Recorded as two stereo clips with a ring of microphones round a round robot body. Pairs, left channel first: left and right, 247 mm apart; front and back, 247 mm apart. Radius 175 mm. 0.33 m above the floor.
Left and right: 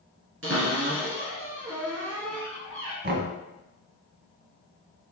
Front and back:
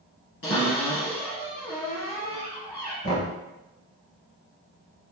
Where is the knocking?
50° right, 1.7 m.